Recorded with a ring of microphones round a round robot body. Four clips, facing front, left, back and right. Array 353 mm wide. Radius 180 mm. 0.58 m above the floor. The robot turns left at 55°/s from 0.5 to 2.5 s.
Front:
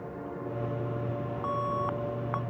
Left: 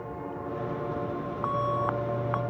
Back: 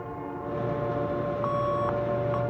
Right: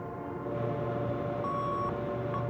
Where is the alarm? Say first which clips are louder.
Left 7 dB, back 2 dB; 125° left; by 2.4 s 70° left.